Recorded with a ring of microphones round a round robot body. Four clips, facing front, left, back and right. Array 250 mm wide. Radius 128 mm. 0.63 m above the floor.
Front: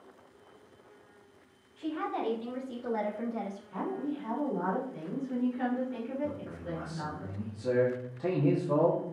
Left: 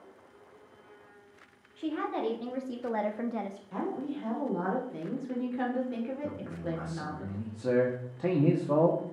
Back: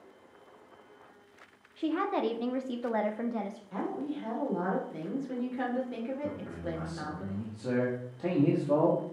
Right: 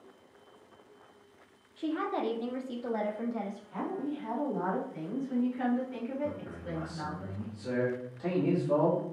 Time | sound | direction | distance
1.8 | a woman speaking | 170° right | 1.7 m
3.7 | a woman speaking | 125° left | 2.5 m
6.2 | a man speaking | 95° left | 1.3 m